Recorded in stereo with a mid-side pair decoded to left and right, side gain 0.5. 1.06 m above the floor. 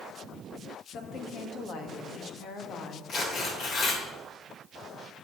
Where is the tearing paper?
55° left, 2.5 m.